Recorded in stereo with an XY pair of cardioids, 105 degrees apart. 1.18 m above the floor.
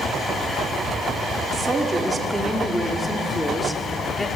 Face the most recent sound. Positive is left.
turn(degrees=25)